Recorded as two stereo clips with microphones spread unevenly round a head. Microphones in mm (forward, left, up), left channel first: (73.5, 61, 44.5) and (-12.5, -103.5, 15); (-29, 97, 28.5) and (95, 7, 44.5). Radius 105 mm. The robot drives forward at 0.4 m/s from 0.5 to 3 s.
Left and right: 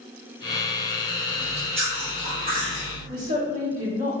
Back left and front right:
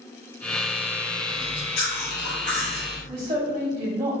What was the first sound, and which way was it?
Chewing, 175° left.